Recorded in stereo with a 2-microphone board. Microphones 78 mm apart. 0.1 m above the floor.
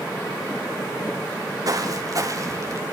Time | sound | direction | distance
1.6 | footsteps | 50° right (ahead or behind) | 3.5 m